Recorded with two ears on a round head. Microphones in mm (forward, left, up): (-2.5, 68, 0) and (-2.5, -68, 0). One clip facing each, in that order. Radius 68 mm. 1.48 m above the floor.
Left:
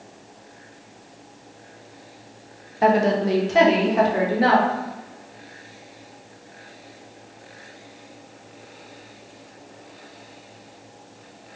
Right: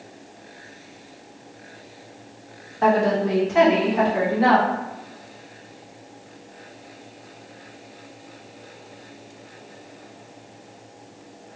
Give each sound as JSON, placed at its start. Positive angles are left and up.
{"t": 2.8, "sound": "a woman speaking", "side_deg": 15, "distance_m": 0.7}